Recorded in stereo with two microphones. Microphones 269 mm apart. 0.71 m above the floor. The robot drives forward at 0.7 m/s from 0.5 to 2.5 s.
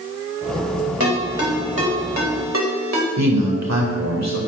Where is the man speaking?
80° right, 2 m.